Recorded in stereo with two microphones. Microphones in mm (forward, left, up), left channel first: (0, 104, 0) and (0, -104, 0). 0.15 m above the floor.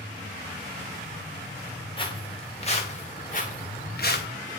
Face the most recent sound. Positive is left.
turn(degrees=50)  # may be behind; listen again after turning